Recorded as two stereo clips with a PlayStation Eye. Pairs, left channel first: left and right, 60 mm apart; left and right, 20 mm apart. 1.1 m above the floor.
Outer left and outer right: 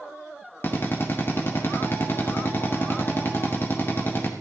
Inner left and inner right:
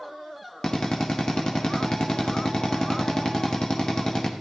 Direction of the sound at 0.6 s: 35° left (ahead or behind).